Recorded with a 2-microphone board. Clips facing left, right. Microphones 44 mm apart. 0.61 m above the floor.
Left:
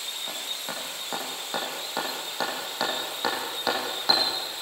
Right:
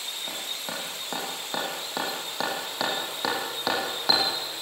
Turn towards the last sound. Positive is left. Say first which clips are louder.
# right 1 dB
turn(degrees=-5)  # may be behind; listen again after turning